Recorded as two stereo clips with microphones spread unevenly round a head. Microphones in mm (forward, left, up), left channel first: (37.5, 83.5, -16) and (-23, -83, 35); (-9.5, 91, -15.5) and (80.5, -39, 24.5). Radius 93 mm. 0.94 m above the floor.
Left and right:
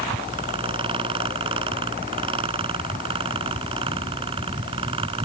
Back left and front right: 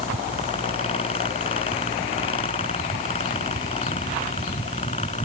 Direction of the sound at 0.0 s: 175° right.